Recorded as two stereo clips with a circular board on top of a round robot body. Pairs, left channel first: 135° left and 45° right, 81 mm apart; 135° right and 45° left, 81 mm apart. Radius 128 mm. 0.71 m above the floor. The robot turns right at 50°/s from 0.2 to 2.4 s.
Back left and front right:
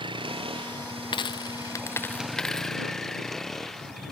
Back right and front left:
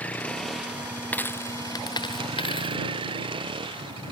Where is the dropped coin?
155° left; by 2.8 s 140° right.